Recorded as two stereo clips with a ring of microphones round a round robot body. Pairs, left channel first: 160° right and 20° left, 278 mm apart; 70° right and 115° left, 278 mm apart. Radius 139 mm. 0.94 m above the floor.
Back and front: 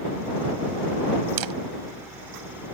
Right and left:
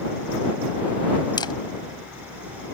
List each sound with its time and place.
1.4 s a camera shutter: 10° left